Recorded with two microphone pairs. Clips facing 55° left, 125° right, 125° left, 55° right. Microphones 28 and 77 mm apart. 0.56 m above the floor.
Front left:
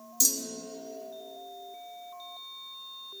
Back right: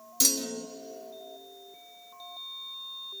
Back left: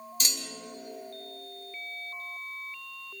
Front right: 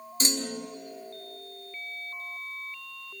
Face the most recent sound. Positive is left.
turn(degrees=-110)